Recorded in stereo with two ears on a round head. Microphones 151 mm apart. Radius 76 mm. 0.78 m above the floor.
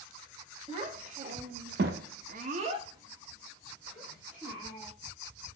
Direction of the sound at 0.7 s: 35° right (ahead or behind).